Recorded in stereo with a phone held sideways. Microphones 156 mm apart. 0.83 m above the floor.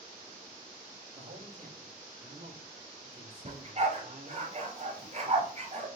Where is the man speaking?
80° right, 4.5 m; by 4.5 s 70° right (ahead or behind), 1.9 m.